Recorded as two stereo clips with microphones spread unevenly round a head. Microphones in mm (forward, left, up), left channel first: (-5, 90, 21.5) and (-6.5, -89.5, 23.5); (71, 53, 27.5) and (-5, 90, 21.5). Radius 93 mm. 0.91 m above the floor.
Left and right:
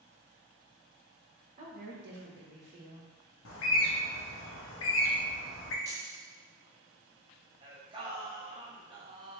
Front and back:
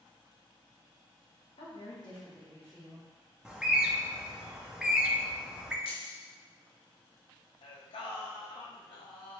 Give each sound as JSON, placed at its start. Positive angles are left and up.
{"t": 1.6, "sound": "a woman speaking", "azimuth_deg": -40, "distance_m": 1.3}
{"t": 3.5, "sound": "a bird", "azimuth_deg": 70, "distance_m": 0.7}
{"t": 5.8, "sound": "keys jangling", "azimuth_deg": -15, "distance_m": 0.8}
{"t": 7.6, "sound": "singing", "azimuth_deg": -25, "distance_m": 0.7}